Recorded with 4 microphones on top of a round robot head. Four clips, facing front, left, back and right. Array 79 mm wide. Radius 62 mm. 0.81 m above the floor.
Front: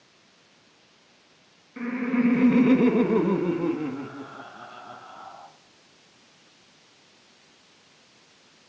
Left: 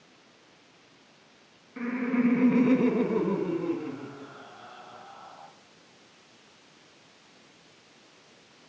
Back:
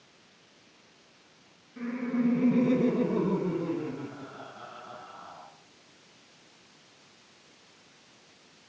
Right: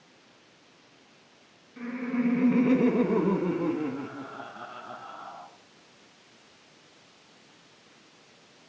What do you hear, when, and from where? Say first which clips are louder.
1.8 s laughter: left 3 dB, front 5 dB; 35° left, 1.4 m; by 5.5 s 60° right, 2.5 m